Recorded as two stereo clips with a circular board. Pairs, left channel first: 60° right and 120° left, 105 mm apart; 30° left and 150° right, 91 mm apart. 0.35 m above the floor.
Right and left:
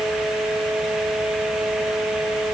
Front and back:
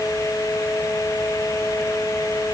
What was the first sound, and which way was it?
Only background noise.